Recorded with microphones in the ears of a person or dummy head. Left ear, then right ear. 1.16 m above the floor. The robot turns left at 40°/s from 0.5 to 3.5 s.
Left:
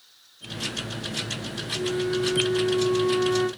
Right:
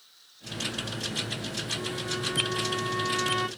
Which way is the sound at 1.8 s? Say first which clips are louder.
Left 6 dB; 15° right.